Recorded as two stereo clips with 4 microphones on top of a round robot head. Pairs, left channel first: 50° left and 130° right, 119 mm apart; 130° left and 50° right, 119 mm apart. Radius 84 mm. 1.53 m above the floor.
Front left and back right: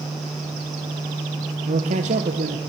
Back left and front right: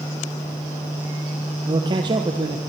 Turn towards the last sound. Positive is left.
turn(degrees=-100)